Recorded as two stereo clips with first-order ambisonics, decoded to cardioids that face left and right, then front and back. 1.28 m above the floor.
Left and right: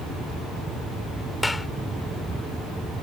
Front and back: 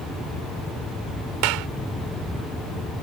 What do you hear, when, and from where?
1.4 s a clap: 170° left